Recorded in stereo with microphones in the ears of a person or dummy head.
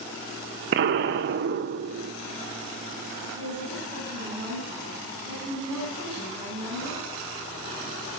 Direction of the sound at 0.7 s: 65° right (ahead or behind).